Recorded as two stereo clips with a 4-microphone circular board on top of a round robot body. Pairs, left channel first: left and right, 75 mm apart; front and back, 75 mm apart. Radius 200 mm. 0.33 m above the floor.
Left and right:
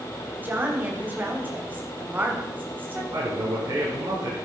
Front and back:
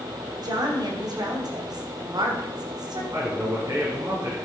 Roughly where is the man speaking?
Behind right.